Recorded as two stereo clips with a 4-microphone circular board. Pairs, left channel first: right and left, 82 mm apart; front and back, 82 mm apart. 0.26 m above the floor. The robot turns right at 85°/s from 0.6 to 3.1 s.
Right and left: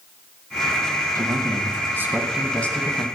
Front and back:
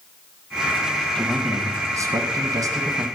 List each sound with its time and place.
1.1 s a man speaking: 75° left, 1.5 m; by 3.0 s 125° right, 1.5 m